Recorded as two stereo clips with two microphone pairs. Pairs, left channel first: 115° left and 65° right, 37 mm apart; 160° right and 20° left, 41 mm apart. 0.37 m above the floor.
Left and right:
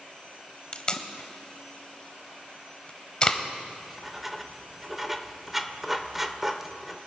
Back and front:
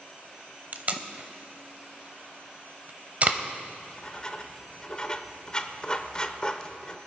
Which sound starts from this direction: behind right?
Writing, at 3.7 s.